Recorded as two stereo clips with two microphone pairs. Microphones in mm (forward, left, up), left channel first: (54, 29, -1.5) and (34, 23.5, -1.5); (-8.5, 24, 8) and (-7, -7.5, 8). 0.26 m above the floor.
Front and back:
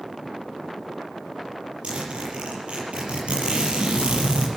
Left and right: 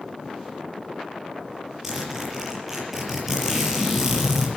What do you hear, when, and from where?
1.8 s a zipper: 165° right, 5 m